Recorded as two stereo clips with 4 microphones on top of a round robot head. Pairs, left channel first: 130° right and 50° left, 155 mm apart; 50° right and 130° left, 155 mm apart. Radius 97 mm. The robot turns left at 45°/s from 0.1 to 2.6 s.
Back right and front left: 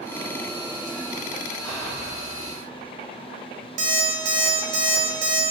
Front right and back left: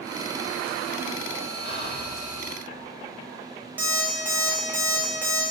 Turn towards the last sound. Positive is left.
turn(degrees=55)